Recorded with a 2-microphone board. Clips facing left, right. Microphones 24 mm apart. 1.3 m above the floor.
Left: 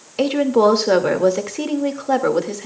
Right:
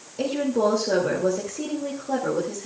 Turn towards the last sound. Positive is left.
turn(degrees=85)